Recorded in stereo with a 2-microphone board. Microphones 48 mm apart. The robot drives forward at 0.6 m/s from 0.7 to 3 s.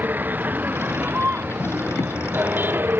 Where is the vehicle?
40° right (ahead or behind); by 3.0 s 45° right (ahead or behind).